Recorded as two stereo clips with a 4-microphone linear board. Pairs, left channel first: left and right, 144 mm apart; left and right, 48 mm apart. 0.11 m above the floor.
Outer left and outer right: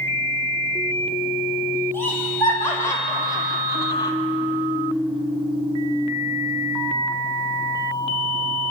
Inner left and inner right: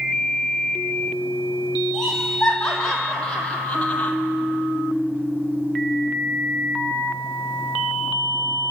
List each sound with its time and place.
1.9 s laughter: 15° left (ahead or behind), 5.5 m; by 4.1 s 30° left (ahead or behind), 3.5 m